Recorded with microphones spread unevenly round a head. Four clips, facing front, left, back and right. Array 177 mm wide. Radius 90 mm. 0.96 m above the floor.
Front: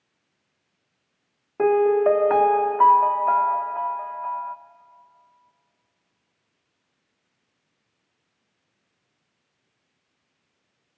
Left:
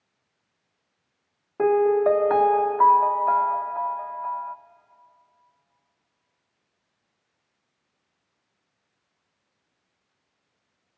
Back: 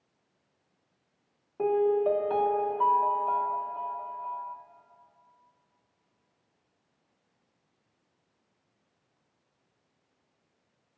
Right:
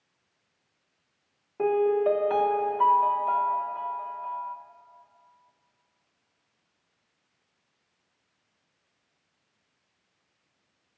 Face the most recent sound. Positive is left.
turn(degrees=20)